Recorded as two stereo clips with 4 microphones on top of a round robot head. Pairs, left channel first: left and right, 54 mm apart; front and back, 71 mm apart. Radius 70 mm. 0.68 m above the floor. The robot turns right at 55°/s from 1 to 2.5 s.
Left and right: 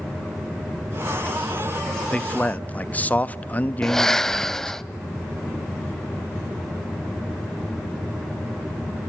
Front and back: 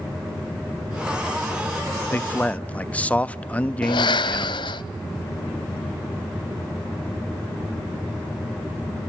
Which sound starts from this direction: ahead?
Breathing, at 3.8 s.